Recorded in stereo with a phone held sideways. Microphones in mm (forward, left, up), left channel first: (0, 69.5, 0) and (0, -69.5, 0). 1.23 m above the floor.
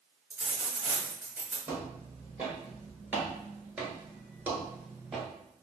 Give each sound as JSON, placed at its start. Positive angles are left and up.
{"t": 0.3, "sound": "a dropped coin", "side_deg": -15, "distance_m": 1.5}
{"t": 1.7, "sound": "footsteps", "side_deg": -15, "distance_m": 2.0}